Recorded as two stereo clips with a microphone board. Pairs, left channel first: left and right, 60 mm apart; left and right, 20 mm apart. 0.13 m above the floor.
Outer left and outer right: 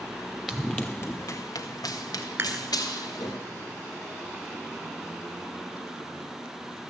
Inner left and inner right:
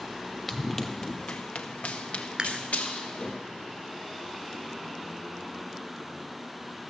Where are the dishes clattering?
40° right (ahead or behind), 1.1 m.